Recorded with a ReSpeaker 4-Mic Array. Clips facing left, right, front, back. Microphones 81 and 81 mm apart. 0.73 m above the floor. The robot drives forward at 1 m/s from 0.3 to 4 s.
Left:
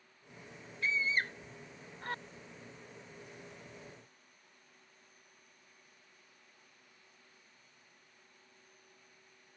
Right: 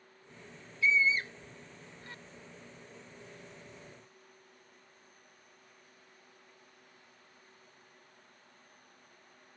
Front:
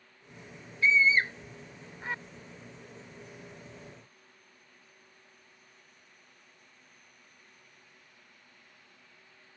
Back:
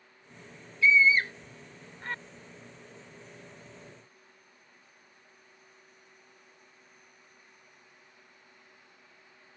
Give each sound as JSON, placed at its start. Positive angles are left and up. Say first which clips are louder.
{"t": 0.8, "sound": "a scream", "louder": "right 5 dB, back 2 dB", "azimuth_deg": 55}